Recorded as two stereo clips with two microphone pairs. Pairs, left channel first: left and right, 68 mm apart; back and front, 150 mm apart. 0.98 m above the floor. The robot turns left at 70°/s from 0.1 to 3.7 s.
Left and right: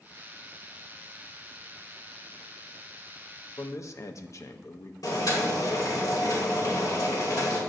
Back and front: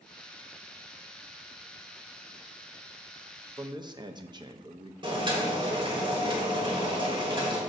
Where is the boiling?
55° left, 2.5 m.